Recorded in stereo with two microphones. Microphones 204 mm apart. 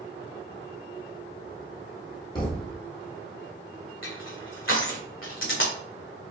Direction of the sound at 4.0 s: 85° left.